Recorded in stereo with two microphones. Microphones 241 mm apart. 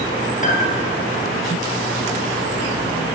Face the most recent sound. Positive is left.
turn(degrees=30)  # may be behind; listen again after turning